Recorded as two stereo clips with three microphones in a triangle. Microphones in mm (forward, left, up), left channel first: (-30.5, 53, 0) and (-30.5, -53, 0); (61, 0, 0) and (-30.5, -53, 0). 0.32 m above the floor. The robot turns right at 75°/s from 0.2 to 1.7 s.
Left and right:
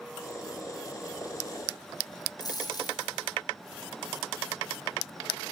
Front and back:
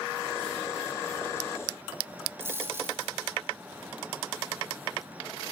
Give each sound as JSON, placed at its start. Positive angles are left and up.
{"t": 2.4, "sound": "a dropped coin", "azimuth_deg": 140, "distance_m": 7.0}